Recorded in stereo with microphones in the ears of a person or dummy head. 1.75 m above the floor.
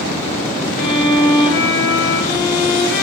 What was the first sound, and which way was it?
A violin, 65° left (ahead or behind).